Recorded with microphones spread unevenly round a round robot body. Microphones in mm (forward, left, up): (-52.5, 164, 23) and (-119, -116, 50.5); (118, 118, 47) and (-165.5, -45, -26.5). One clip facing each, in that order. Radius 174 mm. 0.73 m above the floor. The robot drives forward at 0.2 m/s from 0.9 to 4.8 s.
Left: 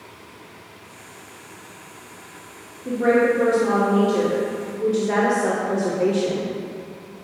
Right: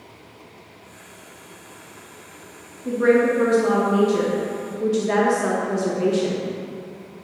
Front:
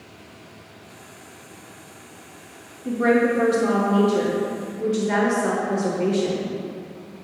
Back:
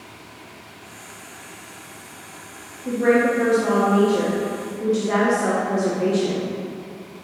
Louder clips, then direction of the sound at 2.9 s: Right 1 dB, back 1 dB; 30° right.